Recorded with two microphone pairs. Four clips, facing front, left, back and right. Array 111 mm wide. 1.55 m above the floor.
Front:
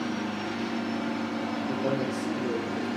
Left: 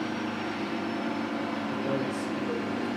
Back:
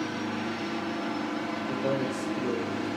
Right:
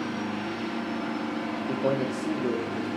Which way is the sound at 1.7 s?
85° right.